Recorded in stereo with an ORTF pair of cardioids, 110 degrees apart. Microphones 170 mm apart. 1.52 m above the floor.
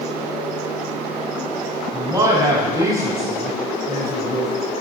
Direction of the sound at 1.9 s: 20° right.